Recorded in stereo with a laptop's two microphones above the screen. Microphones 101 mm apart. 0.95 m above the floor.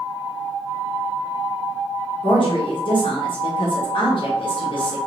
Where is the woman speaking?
55° left (ahead or behind), 1.0 m.